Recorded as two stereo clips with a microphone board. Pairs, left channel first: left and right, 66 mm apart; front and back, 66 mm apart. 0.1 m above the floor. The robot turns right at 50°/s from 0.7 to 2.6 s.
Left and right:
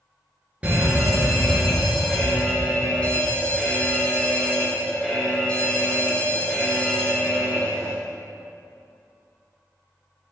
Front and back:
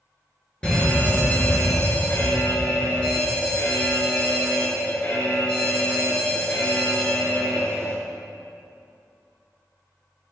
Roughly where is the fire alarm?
Ahead right.